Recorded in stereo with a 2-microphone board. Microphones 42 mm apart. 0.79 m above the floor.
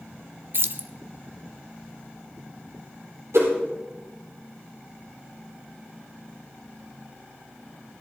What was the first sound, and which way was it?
Keys jangling, 55° right (ahead or behind).